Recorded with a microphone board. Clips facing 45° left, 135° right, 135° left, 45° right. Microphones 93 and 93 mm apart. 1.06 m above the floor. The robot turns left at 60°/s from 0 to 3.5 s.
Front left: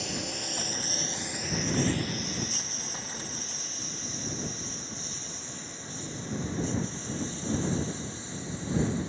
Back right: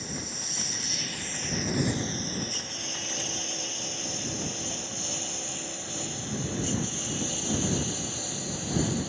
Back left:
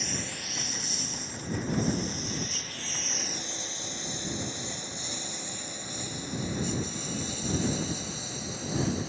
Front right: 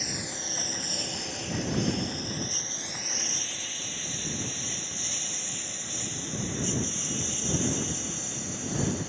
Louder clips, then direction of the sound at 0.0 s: Front left 3 dB, even; 40° left.